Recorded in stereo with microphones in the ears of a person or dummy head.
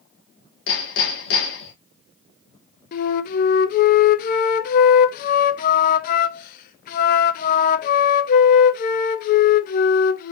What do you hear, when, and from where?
0.7 s hammering: 75° left (ahead or behind), 1.8 m
2.9 s a flute: 50° left (ahead or behind), 0.6 m